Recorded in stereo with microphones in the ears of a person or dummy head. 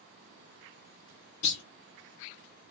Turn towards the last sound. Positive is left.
turn(degrees=70)  # may be behind; listen again after turning